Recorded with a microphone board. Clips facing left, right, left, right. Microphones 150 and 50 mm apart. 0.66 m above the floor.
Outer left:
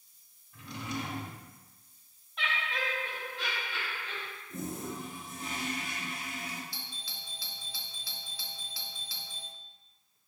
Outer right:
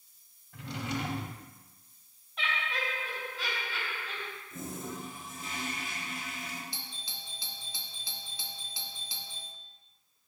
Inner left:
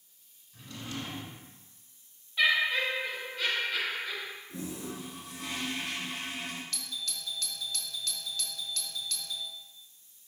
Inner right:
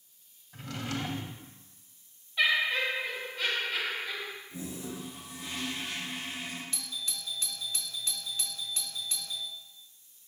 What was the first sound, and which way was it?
A drawer, 85° right.